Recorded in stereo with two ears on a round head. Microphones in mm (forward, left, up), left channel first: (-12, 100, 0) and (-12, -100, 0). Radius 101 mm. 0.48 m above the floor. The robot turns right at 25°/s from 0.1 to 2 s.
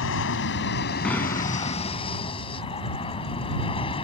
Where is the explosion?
5° left (ahead or behind); by 2.2 s 30° left (ahead or behind).